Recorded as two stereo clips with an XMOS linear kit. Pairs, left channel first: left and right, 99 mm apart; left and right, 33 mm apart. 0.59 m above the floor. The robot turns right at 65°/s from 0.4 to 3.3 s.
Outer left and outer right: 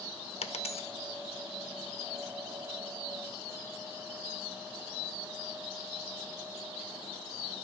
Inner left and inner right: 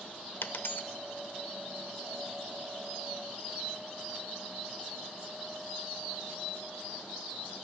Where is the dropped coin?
80° left, 0.5 m; by 0.9 s 60° left (ahead or behind), 0.5 m.